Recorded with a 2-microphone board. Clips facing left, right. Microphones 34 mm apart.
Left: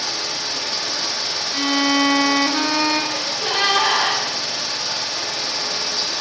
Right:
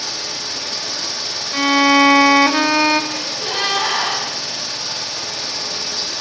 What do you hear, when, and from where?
0.0 s running water: 15° left (ahead or behind), 0.7 m
1.5 s a violin: 40° right (ahead or behind), 0.5 m
3.1 s a gasp: 10° left (ahead or behind), 3.5 m